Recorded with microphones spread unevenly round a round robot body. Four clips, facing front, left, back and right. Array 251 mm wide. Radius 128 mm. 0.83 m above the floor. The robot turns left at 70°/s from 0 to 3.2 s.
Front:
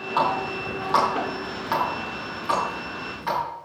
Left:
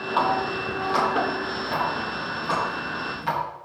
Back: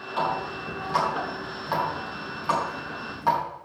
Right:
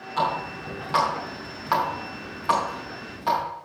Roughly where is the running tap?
Ahead left.